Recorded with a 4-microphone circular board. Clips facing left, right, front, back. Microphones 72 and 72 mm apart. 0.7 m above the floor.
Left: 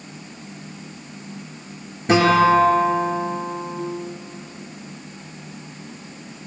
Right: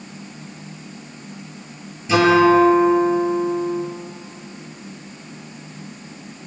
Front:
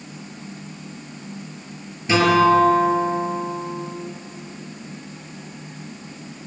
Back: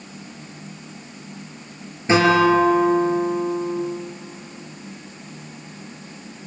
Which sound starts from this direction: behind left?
A guitar, at 2.1 s.